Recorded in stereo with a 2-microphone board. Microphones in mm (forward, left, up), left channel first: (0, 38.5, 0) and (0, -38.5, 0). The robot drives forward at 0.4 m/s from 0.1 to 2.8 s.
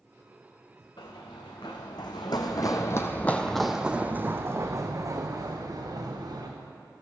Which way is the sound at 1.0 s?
75° left (ahead or behind).